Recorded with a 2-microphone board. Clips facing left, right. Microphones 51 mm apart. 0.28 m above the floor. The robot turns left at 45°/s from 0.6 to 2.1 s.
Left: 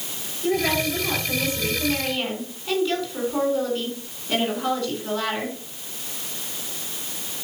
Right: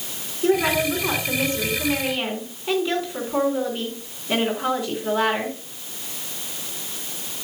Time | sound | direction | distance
0.4 | a woman speaking | 90° right | 3.5 m